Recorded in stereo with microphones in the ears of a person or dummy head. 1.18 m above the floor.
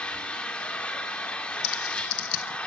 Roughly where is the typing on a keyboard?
Left.